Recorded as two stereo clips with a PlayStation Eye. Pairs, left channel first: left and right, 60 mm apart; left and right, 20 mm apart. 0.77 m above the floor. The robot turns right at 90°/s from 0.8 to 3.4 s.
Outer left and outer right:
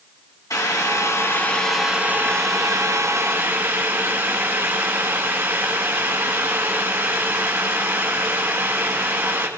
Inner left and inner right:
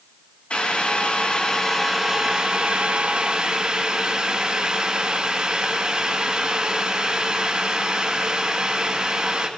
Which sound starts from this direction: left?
Boiling, at 0.5 s.